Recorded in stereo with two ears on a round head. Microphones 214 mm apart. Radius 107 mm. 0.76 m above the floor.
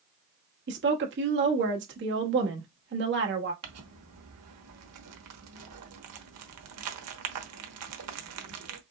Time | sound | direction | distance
0.7 | a woman speaking | 50° right (ahead or behind) | 1.2 m
3.6 | crumpling | 70° right (ahead or behind) | 1.0 m